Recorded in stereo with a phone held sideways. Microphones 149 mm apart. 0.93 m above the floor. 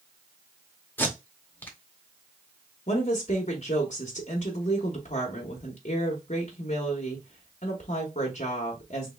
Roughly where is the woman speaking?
Left.